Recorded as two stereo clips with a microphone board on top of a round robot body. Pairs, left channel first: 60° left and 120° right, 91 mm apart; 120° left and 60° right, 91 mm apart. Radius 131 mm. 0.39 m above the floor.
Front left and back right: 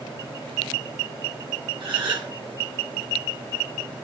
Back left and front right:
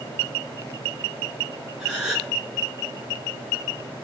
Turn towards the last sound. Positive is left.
turn(degrees=-145)